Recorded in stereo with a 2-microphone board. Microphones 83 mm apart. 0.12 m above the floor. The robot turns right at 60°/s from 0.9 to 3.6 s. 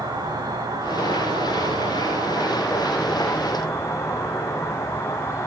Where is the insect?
125° right, 5.5 m; by 5.5 s 35° left, 5.5 m.